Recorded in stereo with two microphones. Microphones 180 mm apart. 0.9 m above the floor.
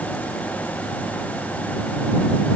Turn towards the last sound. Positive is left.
No sound to turn to.